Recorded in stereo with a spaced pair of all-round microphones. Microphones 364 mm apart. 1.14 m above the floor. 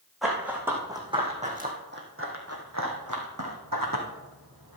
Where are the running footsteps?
Centre (ahead or behind), 3 m; by 4.8 s 65° right (ahead or behind), 3 m.